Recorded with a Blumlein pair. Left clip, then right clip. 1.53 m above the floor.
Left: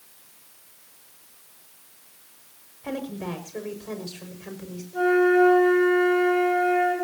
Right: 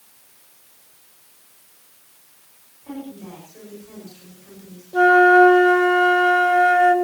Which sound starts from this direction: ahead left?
A woman speaking, at 2.8 s.